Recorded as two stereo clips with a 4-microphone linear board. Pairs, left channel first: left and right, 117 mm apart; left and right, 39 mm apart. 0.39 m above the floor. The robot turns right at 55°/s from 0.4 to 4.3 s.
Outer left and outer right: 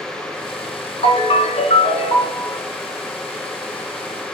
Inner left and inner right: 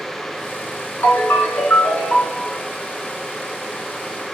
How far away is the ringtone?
About 1.6 m.